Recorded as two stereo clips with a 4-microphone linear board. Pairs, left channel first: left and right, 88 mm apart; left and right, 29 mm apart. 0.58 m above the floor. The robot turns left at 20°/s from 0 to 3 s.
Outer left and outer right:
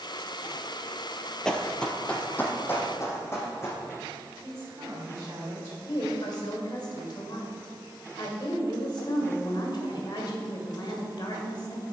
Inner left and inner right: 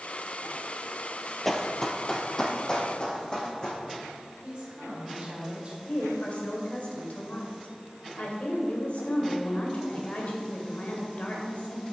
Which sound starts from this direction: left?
A woman speaking, at 5.9 s.